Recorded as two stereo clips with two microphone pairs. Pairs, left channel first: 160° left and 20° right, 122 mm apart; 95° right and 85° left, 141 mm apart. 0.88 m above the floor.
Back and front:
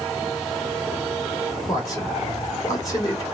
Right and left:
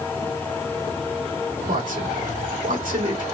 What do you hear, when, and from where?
1.7 s a man speaking: 105° left, 2.5 m